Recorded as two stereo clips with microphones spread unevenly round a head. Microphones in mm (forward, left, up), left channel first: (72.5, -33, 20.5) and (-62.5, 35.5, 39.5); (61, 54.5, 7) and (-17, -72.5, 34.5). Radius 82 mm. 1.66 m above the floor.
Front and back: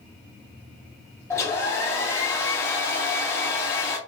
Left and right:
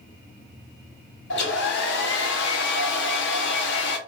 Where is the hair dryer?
50° left, 0.9 m.